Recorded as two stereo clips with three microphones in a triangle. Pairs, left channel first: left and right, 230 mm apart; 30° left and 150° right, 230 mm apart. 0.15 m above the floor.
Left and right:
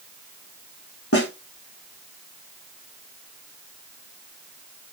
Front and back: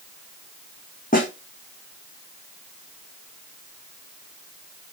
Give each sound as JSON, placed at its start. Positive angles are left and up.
{"t": 1.1, "sound": "a snare drum", "azimuth_deg": 85, "distance_m": 3.5}